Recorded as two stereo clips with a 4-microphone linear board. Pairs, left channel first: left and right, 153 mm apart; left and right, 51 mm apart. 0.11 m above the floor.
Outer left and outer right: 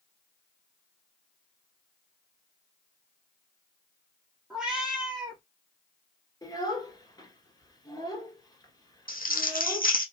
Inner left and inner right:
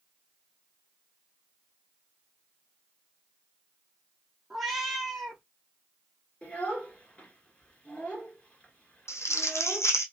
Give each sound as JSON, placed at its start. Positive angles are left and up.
{"t": 4.5, "sound": "a cat meowing", "side_deg": -5, "distance_m": 1.9}
{"t": 6.4, "sound": "a child speaking", "side_deg": 25, "distance_m": 1.4}
{"t": 9.1, "sound": "crumpling", "side_deg": 70, "distance_m": 0.9}